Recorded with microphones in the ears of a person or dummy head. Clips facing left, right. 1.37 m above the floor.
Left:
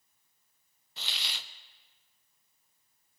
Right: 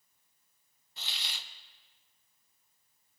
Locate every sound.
1.0 s a hiss: 65° left (ahead or behind), 0.6 m